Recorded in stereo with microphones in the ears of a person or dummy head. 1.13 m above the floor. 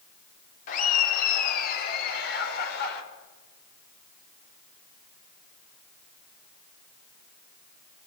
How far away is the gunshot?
I don't hear a gunshot.